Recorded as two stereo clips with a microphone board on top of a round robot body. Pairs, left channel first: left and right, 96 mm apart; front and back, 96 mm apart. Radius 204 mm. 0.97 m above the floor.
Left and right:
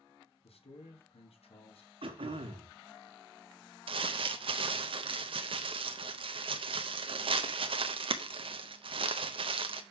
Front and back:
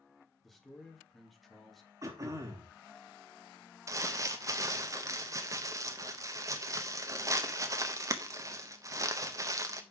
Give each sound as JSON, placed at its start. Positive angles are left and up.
{"t": 0.4, "sound": "a man speaking", "azimuth_deg": 90, "distance_m": 2.0}
{"t": 2.0, "sound": "throat clearing", "azimuth_deg": -120, "distance_m": 1.4}
{"t": 3.9, "sound": "crumpling", "azimuth_deg": -120, "distance_m": 0.7}